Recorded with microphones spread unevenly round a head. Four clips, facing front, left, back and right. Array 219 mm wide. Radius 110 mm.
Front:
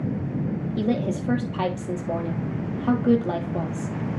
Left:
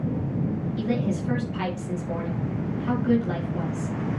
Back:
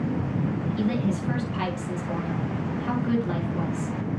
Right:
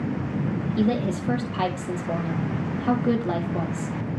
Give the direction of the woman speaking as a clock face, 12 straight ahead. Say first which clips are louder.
Right 4 dB, front 3 dB; 1 o'clock.